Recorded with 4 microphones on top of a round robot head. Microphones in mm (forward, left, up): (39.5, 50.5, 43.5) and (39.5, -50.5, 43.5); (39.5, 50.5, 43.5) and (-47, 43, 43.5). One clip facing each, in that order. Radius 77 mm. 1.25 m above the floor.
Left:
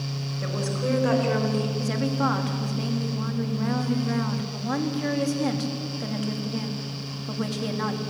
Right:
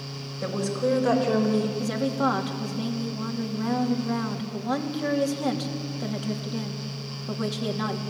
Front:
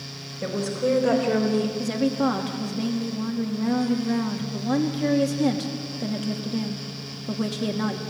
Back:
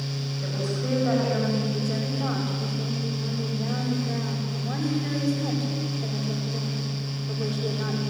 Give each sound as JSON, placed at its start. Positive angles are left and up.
{"t": 0.4, "sound": "a woman speaking", "azimuth_deg": -20, "distance_m": 5.5}
{"t": 1.8, "sound": "a woman speaking", "azimuth_deg": -15, "distance_m": 2.5}